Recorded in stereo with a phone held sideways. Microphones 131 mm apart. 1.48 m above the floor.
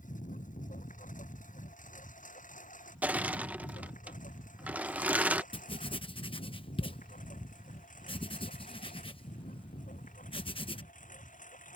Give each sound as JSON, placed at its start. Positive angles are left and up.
{"t": 0.0, "sound": "a lawn mower", "side_deg": 80}
{"t": 3.0, "sound": "crushing", "side_deg": -10}
{"t": 5.5, "sound": "writing", "side_deg": 45}